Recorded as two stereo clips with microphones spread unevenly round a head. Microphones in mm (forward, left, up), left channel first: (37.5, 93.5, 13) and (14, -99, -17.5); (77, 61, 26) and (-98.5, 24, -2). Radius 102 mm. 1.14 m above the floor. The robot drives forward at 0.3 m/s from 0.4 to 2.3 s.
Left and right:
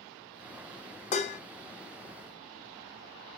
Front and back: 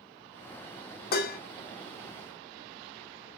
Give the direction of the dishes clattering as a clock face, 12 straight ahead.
11 o'clock.